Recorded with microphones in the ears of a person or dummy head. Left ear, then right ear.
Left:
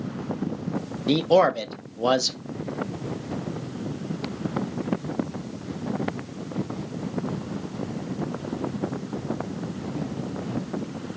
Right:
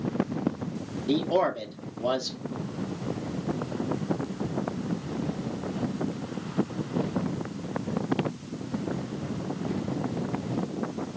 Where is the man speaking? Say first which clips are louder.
Left 6 dB; 65° left (ahead or behind), 0.5 m.